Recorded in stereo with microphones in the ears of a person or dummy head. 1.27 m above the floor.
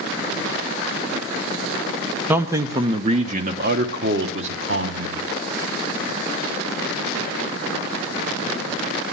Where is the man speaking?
5° right (ahead or behind), 1.0 m; by 5.2 s 70° right (ahead or behind), 1.5 m.